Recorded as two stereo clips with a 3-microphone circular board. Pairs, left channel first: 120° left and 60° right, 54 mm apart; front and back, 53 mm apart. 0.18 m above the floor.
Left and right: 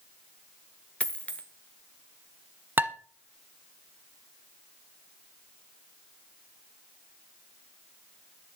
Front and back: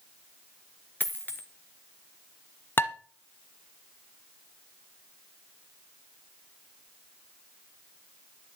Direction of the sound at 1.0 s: 50° left.